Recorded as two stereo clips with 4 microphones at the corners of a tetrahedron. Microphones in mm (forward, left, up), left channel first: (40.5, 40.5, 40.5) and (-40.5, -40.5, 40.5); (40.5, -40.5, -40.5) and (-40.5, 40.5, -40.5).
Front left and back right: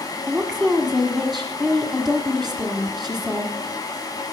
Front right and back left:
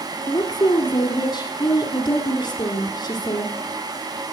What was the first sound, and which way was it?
A woman speaking, 50° right.